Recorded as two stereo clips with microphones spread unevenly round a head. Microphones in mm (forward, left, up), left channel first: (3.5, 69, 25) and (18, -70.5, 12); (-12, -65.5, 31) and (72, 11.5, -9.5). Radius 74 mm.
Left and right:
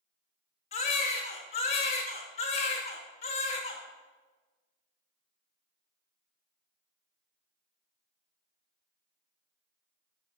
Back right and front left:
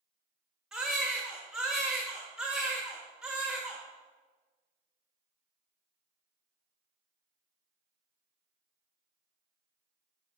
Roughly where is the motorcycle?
I don't hear a motorcycle.